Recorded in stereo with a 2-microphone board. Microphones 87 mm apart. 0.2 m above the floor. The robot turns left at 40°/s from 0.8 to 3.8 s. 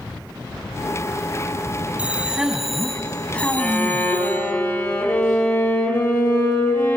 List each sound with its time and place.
2.0 s a man speaking: 150° right, 1.1 m; by 4.5 s 140° left, 1.1 m
3.6 s a violin: 10° left (ahead or behind), 4.5 m; by 7.0 s 20° left (ahead or behind), 4.5 m